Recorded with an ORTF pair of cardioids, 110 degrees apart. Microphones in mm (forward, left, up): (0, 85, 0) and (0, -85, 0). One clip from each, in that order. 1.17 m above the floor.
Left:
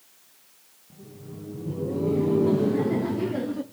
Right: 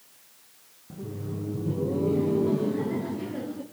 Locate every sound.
0.9 s laughter: 50° right, 0.7 m; by 3.6 s 45° left, 1.3 m